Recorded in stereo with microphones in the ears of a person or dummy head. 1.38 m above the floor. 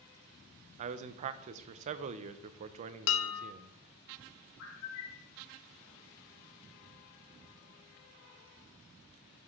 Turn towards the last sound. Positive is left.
turn(degrees=65)  # may be behind; listen again after turning